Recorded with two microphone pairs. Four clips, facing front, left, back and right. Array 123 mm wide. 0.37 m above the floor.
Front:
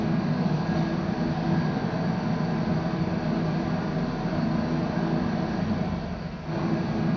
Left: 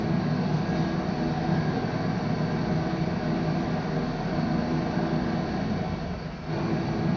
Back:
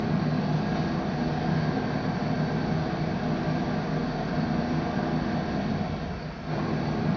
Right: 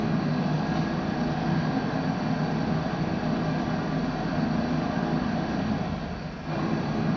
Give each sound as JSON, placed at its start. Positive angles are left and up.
{"t": 0.0, "sound": "an engine running", "azimuth_deg": -85, "distance_m": 4.0}